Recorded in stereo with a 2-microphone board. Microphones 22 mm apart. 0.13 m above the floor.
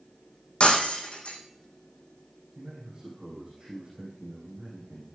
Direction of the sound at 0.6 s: 60° left (ahead or behind).